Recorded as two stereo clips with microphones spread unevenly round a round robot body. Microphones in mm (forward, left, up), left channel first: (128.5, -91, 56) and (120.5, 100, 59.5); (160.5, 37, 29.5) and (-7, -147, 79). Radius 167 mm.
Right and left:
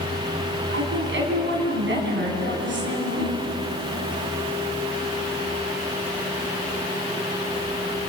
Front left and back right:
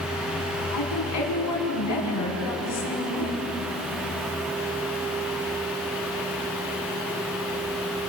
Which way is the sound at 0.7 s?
70° left.